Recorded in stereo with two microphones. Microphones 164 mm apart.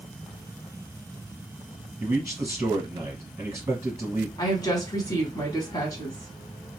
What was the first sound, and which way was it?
A man speaking, 20° right (ahead or behind).